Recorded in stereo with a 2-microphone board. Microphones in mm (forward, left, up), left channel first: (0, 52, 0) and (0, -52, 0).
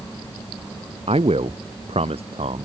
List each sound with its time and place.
1.1 s a man speaking: 75° right (ahead or behind)